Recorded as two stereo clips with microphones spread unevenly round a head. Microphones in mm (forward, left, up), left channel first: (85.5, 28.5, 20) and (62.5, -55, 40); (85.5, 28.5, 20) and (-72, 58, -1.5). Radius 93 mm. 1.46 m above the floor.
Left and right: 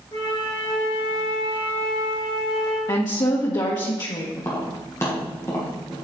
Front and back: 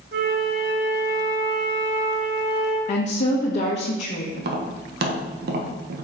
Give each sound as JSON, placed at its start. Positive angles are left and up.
{"t": 0.1, "sound": "a flute", "azimuth_deg": 155, "distance_m": 1.5}
{"t": 2.9, "sound": "a woman speaking", "azimuth_deg": 30, "distance_m": 1.2}
{"t": 4.3, "sound": "tapping", "azimuth_deg": 150, "distance_m": 1.3}